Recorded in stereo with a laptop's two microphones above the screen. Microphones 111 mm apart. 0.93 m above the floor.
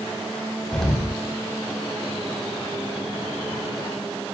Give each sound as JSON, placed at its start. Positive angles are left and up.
{"t": 0.7, "sound": "an explosion", "side_deg": 5, "distance_m": 3.0}